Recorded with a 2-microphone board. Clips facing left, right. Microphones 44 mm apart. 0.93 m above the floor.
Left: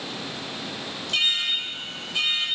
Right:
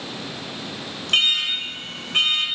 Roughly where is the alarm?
Right.